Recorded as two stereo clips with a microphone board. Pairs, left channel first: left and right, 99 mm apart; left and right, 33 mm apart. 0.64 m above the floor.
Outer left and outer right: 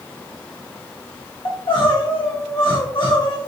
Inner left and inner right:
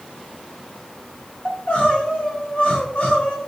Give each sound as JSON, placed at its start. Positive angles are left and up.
{"t": 1.4, "sound": "crying", "side_deg": 50, "distance_m": 1.0}